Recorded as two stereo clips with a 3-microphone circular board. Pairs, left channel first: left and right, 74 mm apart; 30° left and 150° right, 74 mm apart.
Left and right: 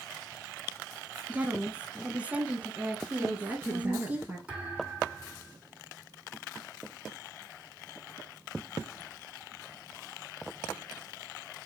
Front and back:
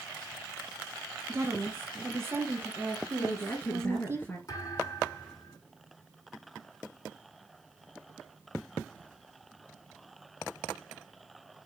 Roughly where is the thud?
Ahead.